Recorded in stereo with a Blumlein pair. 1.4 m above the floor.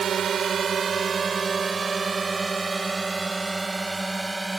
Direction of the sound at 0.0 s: 25° right.